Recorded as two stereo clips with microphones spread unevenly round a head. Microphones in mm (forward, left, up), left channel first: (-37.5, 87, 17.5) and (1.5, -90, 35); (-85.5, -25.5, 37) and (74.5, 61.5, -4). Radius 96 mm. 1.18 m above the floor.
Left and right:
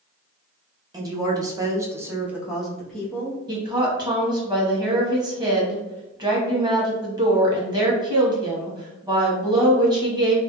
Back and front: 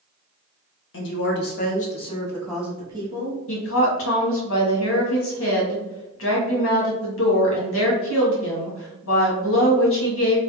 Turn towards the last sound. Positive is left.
turn(degrees=-145)